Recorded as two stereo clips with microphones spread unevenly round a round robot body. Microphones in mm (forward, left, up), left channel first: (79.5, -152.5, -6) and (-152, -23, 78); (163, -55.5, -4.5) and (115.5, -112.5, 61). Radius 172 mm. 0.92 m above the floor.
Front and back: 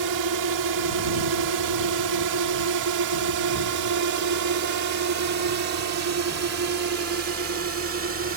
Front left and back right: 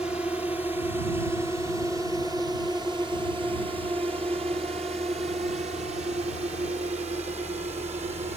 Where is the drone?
125° left; by 8.4 s 165° right.